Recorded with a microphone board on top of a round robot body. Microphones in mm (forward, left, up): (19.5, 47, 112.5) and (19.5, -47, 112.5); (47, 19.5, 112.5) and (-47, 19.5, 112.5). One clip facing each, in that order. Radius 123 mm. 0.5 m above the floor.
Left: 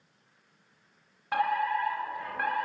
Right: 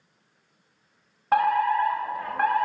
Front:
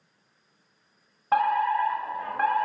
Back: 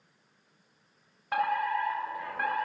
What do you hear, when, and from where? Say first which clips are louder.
1.3 s a fire alarm: right 7 dB, front 6 dB; 45° right, 7.5 m